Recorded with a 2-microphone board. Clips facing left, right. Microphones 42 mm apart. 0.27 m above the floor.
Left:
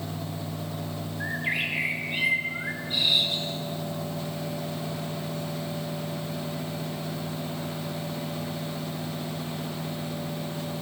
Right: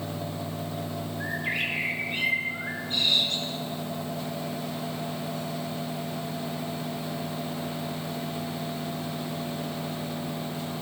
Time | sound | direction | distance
1.2 | a bird | 10° left (ahead or behind) | 2 m